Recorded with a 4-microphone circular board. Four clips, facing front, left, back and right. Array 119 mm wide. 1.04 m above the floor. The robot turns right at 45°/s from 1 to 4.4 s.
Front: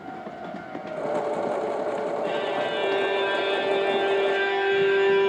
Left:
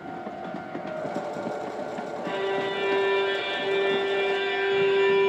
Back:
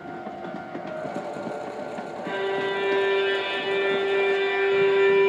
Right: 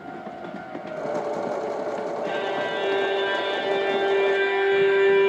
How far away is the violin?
About 1.8 m.